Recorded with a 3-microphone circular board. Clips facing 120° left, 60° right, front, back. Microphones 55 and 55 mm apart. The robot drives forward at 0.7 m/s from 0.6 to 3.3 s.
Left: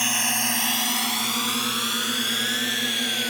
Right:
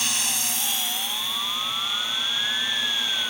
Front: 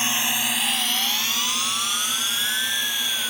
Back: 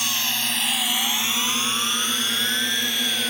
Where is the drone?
60° left; by 3.3 s 140° left.